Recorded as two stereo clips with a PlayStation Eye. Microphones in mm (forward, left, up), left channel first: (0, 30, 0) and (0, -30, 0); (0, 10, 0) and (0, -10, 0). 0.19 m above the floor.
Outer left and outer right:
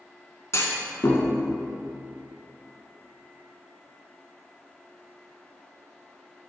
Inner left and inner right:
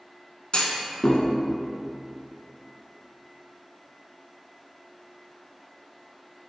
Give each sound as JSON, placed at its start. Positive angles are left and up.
{"t": 0.5, "sound": "a clunk", "side_deg": 55, "distance_m": 0.6}